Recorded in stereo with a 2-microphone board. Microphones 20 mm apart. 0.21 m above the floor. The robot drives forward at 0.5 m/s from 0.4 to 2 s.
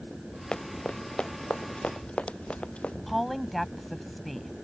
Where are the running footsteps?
55° left (ahead or behind); by 3.0 s 85° left.